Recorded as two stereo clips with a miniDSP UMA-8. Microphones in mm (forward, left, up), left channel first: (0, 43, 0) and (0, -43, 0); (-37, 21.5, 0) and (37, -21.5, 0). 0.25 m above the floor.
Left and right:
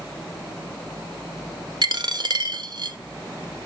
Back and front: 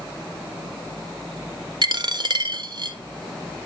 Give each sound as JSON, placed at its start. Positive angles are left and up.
{"t": 1.8, "sound": "a dropped coin", "azimuth_deg": -60, "distance_m": 0.8}